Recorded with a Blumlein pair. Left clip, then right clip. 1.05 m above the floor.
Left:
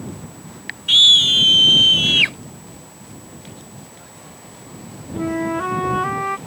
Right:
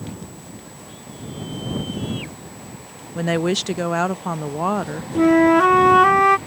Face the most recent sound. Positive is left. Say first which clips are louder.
# right 9 dB
turn(degrees=-25)